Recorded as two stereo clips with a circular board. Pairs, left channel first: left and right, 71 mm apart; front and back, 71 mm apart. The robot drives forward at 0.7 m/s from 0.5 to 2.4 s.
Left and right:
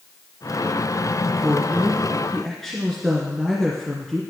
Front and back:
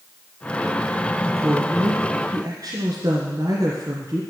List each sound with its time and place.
1.2 s a woman speaking: 170° left, 1.6 m; by 4.2 s 175° left, 2 m